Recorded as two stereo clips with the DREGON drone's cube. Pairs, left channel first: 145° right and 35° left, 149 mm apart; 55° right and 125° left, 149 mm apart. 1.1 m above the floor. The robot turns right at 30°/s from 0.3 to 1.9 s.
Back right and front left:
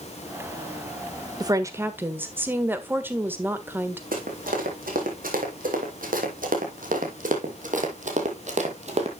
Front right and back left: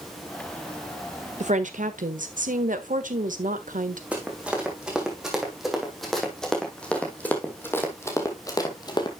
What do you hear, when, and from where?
1.4 s a woman speaking: 95° left, 1.4 m; by 4.0 s 110° left, 1.4 m
4.1 s running footsteps: 45° left, 3.5 m; by 9.1 s straight ahead, 2 m